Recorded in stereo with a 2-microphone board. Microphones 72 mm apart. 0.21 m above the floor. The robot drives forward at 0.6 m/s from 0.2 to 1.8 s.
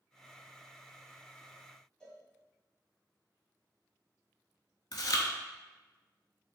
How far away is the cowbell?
About 1.8 m.